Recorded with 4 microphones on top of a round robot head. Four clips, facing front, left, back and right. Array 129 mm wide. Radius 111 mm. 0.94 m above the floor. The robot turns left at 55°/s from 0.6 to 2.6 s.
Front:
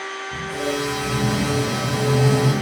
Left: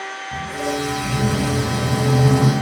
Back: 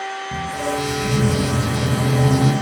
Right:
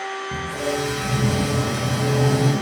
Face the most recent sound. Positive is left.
turn(degrees=110)